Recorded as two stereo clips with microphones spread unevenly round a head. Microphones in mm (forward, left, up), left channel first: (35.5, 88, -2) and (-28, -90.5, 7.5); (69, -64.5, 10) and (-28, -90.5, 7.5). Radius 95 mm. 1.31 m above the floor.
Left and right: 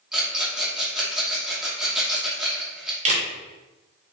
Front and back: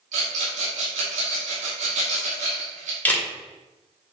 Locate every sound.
0.1 s a rattle: 165° left, 2.5 m
3.0 s a camera shutter: 60° right, 2.5 m